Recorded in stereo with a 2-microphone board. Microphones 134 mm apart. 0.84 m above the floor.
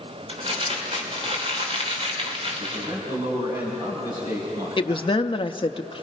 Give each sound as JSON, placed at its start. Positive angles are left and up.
{"t": 0.3, "sound": "crumpling", "side_deg": -45, "distance_m": 3.5}
{"t": 2.6, "sound": "a man speaking", "side_deg": -35, "distance_m": 6.5}
{"t": 4.8, "sound": "a woman speaking", "side_deg": 40, "distance_m": 0.8}